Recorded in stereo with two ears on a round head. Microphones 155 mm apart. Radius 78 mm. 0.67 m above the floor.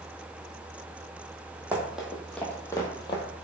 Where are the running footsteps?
10° right (ahead or behind), 1.1 m; by 3.2 s 35° left (ahead or behind), 0.9 m.